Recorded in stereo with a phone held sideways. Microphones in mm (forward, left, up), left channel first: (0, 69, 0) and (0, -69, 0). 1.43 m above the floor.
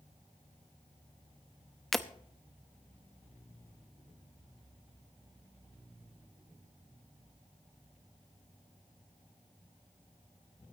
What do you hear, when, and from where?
1.9 s breaking glass: centre (ahead or behind), 0.8 m